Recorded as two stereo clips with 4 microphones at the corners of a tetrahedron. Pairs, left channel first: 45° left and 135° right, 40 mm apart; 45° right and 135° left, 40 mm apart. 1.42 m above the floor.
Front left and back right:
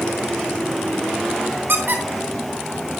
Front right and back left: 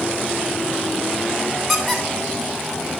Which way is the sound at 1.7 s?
130° right.